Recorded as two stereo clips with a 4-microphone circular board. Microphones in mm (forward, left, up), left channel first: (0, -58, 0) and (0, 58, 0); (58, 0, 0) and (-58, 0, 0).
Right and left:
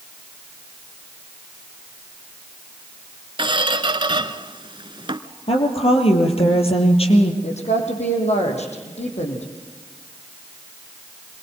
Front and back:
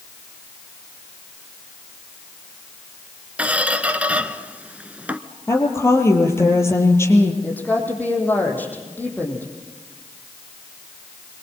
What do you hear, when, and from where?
3.4 s a squeak: 105° left, 1.1 m
5.5 s a woman speaking: 65° right, 4 m
7.4 s a woman speaking: 75° right, 5.5 m